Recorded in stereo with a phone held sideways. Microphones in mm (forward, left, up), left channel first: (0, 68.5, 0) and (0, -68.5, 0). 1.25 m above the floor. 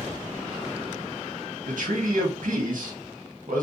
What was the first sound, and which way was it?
A man speaking, 75° right (ahead or behind).